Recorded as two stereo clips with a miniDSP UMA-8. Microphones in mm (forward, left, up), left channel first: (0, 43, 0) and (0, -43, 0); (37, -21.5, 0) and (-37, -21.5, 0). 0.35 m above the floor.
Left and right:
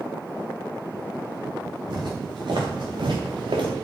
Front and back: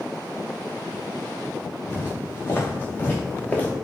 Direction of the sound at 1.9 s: 55° right.